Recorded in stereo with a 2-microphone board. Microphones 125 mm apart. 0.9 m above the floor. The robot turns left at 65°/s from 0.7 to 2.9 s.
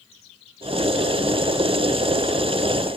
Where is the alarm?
No alarm in this recording.